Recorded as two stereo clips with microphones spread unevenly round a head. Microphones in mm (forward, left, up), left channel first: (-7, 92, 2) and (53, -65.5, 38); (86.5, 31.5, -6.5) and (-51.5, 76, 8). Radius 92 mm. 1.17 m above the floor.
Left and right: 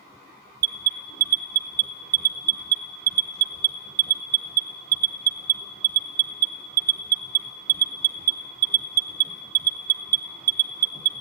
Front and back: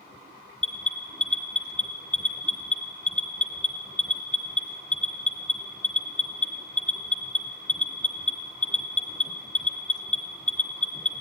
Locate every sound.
0.6 s an alarm: 95° right, 0.9 m